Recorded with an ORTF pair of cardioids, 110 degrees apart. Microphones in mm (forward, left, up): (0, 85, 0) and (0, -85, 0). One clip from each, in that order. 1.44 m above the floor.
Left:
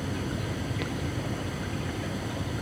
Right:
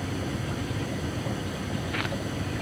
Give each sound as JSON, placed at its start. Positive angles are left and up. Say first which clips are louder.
{"t": 0.0, "sound": "a fan", "louder": "right 1 dB", "azimuth_deg": -5}